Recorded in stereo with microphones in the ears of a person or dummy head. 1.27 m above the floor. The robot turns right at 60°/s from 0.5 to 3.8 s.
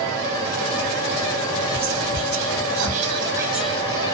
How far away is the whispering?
About 0.6 m.